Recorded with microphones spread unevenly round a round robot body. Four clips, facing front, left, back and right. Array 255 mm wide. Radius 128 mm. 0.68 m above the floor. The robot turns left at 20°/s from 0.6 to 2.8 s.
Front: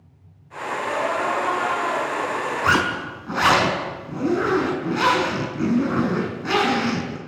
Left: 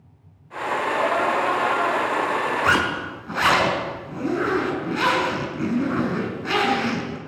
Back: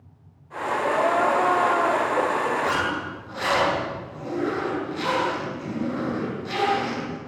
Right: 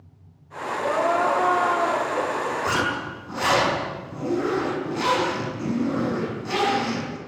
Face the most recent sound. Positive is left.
turn(degrees=15)